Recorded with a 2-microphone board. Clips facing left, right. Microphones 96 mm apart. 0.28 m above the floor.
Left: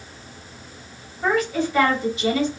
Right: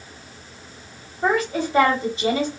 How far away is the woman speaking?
About 1.0 m.